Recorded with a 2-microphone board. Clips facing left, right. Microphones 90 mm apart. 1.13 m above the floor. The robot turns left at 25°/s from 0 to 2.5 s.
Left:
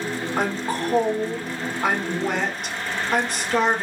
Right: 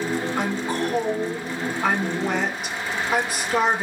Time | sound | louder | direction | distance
0.4 | a woman speaking | even | 50° left | 3 m